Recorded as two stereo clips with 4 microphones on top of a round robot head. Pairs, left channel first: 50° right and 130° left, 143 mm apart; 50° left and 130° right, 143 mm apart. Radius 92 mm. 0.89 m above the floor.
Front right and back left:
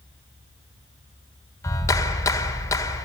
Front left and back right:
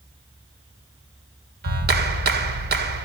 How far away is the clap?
About 2 m.